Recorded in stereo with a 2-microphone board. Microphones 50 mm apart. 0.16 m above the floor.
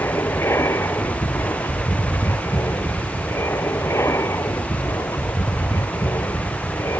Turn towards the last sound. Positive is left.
turn(degrees=70)  # may be behind; listen again after turning